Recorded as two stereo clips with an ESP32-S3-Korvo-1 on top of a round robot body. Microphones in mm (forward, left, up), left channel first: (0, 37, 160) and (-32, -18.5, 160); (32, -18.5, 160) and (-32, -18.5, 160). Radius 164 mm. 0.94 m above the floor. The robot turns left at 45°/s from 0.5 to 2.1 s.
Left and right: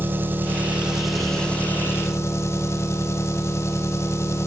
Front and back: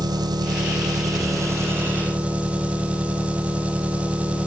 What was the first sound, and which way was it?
An engine running, straight behind.